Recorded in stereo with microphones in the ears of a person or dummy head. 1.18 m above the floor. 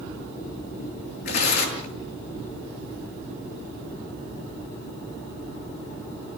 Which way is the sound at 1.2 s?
60° left (ahead or behind).